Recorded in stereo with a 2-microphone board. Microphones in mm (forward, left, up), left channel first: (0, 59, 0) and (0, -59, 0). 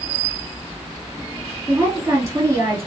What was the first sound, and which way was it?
A woman speaking, 25° right (ahead or behind).